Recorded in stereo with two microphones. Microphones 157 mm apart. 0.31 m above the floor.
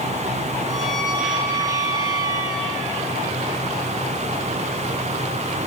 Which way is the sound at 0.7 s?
20° right (ahead or behind).